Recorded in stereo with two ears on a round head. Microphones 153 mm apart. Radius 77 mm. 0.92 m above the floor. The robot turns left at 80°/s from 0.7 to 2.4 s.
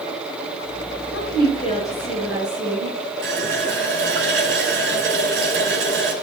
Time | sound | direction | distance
1.1 | a woman speaking | 80° left | 8.5 m
3.2 | a running tap | 80° right | 5 m